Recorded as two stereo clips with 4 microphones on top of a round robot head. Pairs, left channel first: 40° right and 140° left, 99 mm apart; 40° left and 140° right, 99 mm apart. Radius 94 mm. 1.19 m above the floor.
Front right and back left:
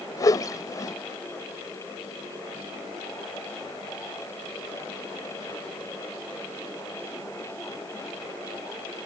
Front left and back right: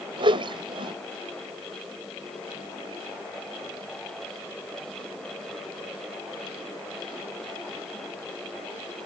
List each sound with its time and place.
0.2 s a whoosh: 100° right